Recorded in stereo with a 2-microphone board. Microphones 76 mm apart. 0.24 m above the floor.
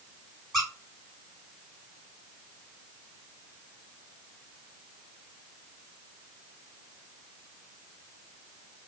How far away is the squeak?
About 1.9 m.